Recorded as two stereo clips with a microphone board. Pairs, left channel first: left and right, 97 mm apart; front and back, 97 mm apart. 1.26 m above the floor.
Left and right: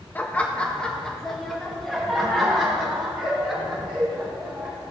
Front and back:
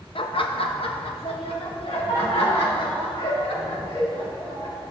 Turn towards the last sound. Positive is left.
turn(degrees=-5)